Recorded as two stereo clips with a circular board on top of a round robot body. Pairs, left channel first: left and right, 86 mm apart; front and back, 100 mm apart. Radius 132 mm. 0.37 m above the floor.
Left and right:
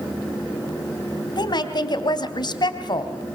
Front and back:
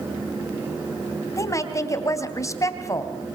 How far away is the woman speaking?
About 3 m.